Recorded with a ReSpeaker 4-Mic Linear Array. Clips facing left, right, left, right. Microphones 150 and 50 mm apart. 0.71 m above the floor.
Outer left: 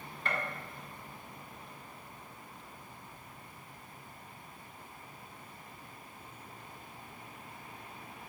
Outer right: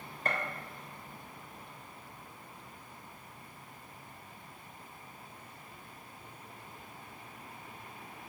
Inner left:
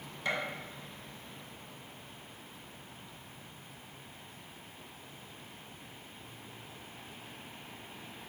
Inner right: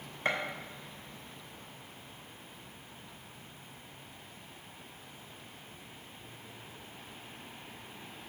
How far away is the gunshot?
About 0.7 m.